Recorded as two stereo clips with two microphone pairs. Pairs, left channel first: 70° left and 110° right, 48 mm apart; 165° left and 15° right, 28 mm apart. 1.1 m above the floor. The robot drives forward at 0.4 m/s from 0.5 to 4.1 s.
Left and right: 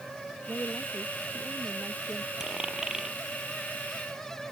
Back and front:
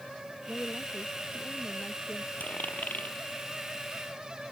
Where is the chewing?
I don't hear chewing.